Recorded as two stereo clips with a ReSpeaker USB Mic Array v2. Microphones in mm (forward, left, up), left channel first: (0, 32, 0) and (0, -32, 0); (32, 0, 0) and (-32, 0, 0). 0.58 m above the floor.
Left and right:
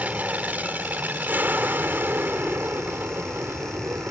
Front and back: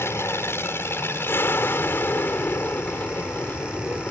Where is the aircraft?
30° right; by 4.1 s 55° right.